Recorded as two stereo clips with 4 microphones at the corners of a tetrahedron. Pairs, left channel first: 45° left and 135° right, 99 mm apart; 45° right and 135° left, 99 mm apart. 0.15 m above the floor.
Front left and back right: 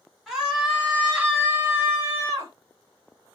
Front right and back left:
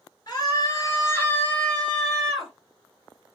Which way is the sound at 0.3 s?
50° right.